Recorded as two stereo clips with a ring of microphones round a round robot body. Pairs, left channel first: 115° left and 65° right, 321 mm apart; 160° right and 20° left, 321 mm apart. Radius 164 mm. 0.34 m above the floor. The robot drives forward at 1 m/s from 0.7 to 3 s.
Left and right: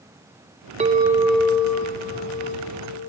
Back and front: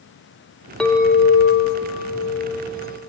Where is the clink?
75° right, 0.7 m; by 3.1 s 175° right, 2 m.